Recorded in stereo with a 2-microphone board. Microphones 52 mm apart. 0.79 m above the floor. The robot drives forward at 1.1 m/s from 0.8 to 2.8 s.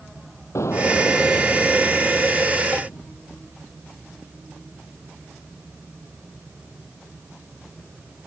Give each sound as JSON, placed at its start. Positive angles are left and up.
{"t": 0.6, "sound": "an explosion", "side_deg": 65}